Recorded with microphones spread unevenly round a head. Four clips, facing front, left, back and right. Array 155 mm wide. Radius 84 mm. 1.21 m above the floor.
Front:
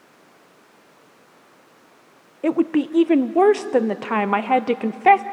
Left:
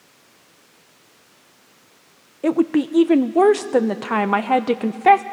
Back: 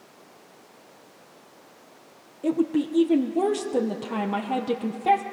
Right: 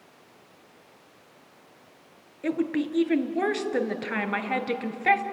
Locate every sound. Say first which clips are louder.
2.4 s a woman speaking: left 9 dB, front 4 dB; 55° left, 0.8 m